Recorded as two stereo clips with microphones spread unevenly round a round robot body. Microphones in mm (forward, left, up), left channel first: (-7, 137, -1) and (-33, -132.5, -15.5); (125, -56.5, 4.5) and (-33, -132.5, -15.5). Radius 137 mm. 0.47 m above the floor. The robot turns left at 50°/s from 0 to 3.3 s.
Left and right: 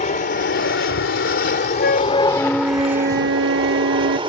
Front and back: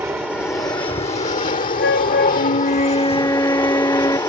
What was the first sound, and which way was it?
An aircraft, 130° left.